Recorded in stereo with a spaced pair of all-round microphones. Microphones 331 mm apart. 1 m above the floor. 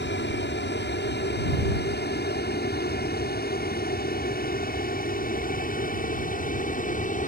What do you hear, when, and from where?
0.0 s an aircraft: 35° left (ahead or behind); by 7.3 s 25° left (ahead or behind)